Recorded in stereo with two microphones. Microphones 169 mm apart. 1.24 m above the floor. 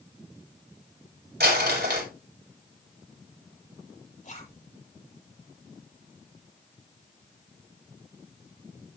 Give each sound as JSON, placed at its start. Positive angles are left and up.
{"t": 1.4, "sound": "crumpling", "side_deg": -75, "distance_m": 5.5}
{"t": 4.2, "sound": "a zipper", "side_deg": 50, "distance_m": 8.0}